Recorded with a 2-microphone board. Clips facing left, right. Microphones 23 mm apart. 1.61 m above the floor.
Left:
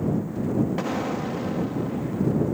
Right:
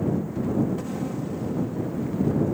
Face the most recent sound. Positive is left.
turn(degrees=55)  # may be behind; listen again after turning